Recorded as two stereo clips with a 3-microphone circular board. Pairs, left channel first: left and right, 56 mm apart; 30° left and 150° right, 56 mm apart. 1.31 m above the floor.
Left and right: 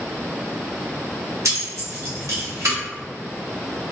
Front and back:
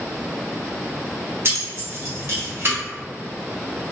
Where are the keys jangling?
110° right, 1.2 m.